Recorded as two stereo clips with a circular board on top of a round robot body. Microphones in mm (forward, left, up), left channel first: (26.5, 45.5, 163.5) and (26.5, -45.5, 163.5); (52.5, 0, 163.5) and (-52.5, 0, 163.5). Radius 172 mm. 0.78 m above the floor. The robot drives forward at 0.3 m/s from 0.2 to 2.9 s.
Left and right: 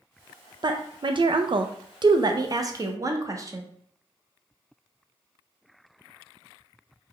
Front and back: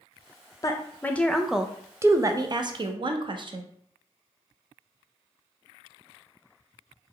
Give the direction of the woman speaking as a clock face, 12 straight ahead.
2 o'clock.